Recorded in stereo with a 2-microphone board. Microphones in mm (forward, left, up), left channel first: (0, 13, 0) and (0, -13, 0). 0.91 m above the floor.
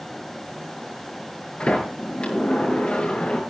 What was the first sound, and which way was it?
A sliding door, 45° left (ahead or behind).